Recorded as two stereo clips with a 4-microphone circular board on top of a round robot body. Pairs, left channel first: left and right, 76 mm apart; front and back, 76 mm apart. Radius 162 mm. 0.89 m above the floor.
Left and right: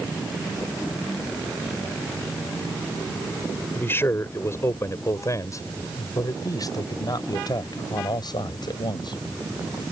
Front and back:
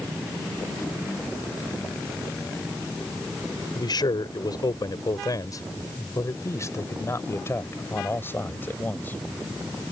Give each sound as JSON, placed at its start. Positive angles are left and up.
{"t": 3.8, "sound": "a man speaking", "azimuth_deg": 30}